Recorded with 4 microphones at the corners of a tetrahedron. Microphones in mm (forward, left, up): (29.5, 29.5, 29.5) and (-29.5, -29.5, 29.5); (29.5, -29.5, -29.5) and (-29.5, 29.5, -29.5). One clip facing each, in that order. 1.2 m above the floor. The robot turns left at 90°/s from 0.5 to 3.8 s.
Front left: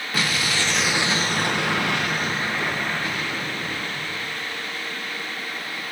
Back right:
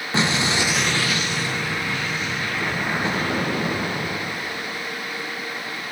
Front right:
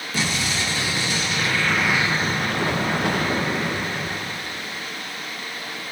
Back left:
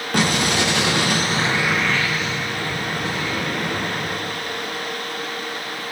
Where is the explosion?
160° left, 0.8 m; by 4.8 s 135° right, 0.8 m.